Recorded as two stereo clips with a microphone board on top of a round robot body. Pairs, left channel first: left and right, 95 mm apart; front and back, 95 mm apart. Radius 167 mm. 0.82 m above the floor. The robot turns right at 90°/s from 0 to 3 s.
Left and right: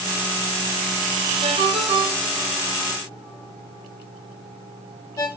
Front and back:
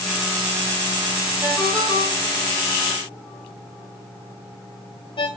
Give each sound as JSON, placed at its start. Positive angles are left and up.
{"t": 1.4, "sound": "a ringtone", "azimuth_deg": -105, "distance_m": 2.0}